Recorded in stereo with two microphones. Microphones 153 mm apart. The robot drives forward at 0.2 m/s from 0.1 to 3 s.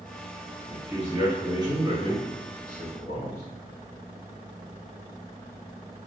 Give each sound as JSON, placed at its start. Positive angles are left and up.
{"t": 0.7, "sound": "a man speaking", "side_deg": -30, "distance_m": 1.9}